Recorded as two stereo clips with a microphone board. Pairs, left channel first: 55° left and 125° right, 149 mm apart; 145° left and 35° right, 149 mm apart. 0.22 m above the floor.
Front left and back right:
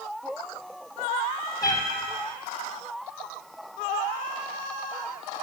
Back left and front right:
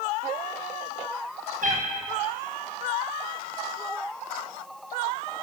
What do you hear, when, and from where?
1.6 s a cat meowing: 10° right, 1.4 m